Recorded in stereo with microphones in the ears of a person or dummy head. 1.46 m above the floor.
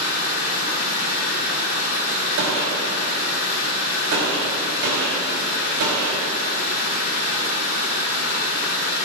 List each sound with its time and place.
0.0 s running water: 65° left (ahead or behind), 4 m
2.4 s a gunshot: 65° right (ahead or behind), 3 m